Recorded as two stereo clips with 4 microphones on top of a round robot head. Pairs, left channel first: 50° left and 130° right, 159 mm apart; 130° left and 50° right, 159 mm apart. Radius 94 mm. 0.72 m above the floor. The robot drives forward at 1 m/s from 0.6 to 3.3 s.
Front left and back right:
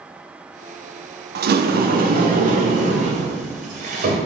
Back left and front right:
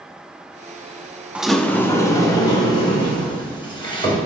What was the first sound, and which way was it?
A sliding door, 135° right.